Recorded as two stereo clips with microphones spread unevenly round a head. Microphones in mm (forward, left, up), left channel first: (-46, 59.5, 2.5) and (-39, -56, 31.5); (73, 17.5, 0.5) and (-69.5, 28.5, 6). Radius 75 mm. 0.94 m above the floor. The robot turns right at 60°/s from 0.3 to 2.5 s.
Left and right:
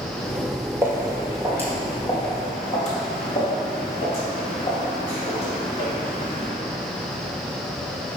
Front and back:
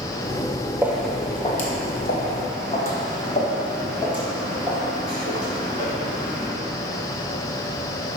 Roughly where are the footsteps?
Behind right.